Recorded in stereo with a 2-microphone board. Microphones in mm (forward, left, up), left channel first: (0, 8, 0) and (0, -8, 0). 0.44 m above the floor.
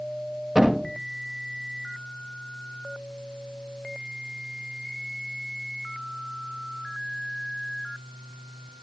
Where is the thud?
50° right (ahead or behind), 9.5 m.